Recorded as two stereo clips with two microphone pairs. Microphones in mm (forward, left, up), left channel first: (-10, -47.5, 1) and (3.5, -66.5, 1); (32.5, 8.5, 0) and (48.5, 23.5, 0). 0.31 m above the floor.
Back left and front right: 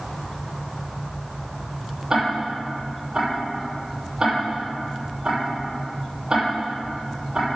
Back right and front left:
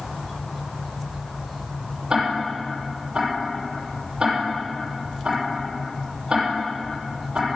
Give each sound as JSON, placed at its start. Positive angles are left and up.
{"t": 2.1, "sound": "ticking", "azimuth_deg": 0, "distance_m": 7.0}